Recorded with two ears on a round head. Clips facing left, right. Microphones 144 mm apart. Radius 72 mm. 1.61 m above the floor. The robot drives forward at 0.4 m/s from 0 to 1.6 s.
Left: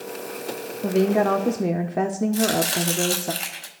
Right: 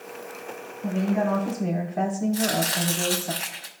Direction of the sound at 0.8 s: 70° left (ahead or behind).